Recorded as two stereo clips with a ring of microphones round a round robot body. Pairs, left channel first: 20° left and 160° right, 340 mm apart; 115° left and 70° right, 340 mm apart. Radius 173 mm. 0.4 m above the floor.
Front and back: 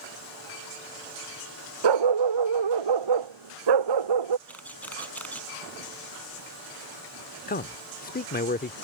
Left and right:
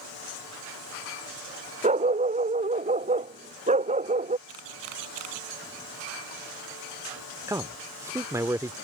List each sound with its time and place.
1.8 s a dog barking: 140° right
4.5 s a camera shutter: 65° right
7.5 s a man speaking: 5° left